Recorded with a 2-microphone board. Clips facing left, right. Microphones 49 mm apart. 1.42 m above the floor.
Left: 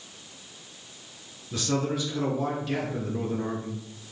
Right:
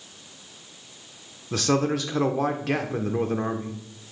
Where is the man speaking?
85° right, 0.9 m.